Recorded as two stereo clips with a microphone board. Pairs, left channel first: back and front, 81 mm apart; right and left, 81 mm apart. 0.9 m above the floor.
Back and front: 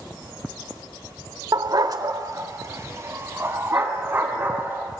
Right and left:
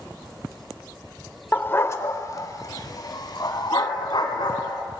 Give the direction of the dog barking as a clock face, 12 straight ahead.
1 o'clock.